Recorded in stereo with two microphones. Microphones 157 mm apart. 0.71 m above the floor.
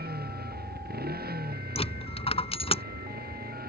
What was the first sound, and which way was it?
A motorcycle, 90° right.